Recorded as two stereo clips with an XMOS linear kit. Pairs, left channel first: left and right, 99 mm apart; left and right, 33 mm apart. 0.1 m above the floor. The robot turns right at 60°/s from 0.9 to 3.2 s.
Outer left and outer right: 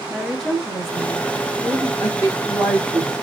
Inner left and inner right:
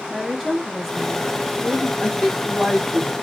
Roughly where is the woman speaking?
Centre.